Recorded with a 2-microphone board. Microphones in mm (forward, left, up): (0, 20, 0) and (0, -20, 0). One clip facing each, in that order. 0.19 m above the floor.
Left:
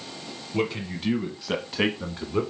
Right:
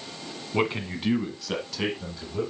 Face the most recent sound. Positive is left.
turn(degrees=50)  # may be behind; listen again after turning